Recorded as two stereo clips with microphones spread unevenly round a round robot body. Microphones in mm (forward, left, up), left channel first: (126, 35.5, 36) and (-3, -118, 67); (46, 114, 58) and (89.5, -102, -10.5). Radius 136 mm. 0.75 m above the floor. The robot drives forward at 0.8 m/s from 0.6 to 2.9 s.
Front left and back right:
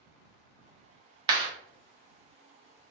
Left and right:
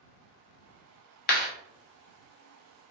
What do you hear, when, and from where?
1.3 s a clap: 160° left, 0.9 m